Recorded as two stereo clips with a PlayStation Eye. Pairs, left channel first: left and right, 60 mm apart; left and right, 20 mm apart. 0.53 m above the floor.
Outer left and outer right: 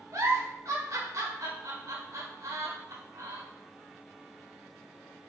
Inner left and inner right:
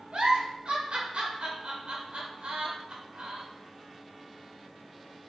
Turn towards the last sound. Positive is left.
turn(degrees=-65)  # may be behind; listen again after turning